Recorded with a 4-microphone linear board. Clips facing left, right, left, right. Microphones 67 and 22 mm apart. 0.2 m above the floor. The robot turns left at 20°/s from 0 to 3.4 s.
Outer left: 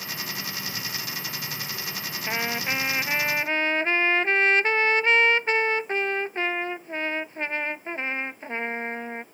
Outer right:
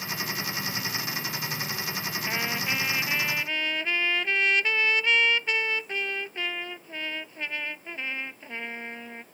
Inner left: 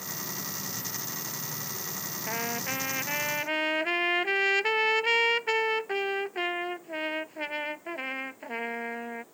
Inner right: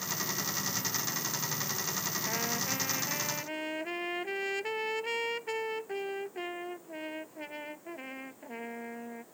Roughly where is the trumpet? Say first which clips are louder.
Outer left 3 dB, inner left 4 dB; centre.